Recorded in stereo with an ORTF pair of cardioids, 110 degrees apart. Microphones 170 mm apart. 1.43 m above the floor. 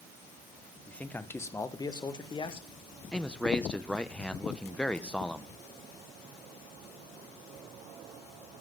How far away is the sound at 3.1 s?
About 1.0 m.